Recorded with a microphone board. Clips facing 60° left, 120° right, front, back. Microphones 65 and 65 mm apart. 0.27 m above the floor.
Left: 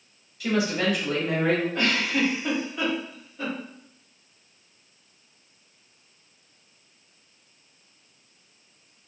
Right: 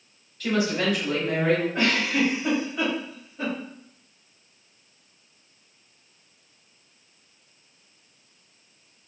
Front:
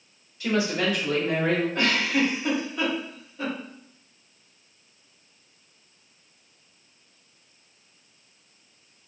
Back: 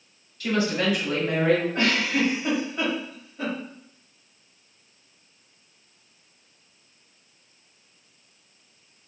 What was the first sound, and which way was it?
A woman speaking, 5° right.